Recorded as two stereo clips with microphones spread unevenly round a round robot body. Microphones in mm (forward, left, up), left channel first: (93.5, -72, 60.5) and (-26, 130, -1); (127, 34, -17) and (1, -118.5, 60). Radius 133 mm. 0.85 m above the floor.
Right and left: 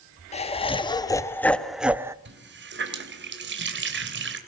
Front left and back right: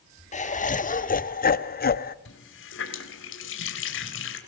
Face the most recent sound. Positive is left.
turn(degrees=80)